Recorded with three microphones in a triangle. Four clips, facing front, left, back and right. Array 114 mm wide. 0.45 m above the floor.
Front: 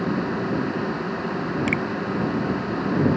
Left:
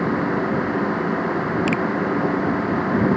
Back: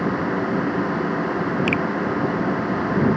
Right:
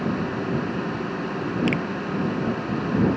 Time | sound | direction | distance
1.7 | a finger snap | 135° left | ?